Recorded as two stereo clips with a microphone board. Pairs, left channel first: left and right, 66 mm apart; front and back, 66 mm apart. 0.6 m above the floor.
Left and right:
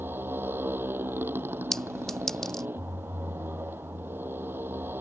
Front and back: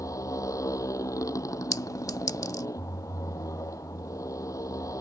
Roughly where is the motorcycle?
Ahead right.